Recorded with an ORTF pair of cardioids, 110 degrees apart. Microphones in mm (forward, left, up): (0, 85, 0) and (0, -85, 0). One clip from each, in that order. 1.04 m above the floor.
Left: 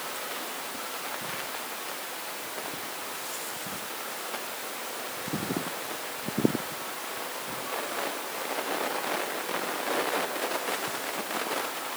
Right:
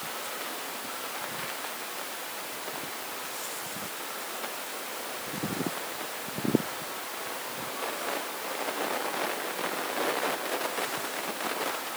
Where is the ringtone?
No ringtone in this recording.